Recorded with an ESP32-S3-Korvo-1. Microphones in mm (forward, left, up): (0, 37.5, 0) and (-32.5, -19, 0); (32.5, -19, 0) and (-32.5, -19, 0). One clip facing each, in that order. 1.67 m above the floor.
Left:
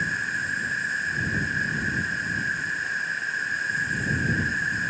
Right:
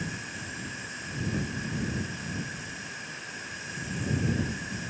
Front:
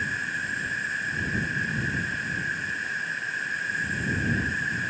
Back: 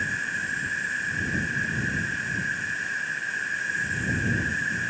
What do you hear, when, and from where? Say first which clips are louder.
0.0 s an insect: left 11 dB, back 1 dB; 95° left